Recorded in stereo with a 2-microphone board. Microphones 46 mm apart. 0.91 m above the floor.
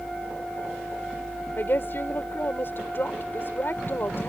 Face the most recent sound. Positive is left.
turn(degrees=50)  # may be behind; listen again after turning